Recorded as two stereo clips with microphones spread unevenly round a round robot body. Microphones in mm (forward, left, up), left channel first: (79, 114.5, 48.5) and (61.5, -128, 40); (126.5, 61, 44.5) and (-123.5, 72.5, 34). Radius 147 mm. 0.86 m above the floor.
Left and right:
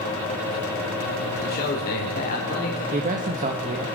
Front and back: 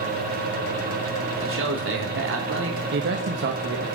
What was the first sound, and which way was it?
A man speaking, 145° left.